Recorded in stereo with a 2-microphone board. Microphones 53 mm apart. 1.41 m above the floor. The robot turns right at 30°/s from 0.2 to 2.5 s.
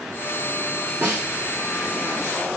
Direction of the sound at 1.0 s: 45° right (ahead or behind).